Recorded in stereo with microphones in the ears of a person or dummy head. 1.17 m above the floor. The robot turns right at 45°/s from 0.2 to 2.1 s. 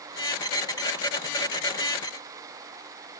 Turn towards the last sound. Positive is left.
No sound to turn to.